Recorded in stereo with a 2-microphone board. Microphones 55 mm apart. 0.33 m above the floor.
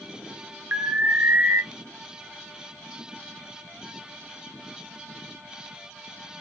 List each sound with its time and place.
0.7 s an alarm: 40° right (ahead or behind), 0.8 m